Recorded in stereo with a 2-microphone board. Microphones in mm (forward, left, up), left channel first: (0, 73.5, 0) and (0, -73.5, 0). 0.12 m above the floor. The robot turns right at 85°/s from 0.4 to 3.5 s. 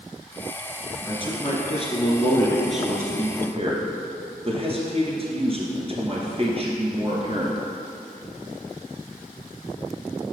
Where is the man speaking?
35° left, 1.5 m; by 7.6 s 115° right, 1.5 m.